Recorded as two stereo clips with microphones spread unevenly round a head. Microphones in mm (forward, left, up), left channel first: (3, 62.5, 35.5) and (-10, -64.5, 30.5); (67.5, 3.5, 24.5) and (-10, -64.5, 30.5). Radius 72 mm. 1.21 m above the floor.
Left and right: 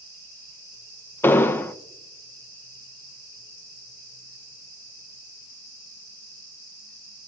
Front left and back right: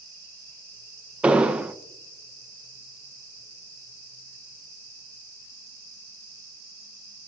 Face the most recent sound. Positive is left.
turn(degrees=145)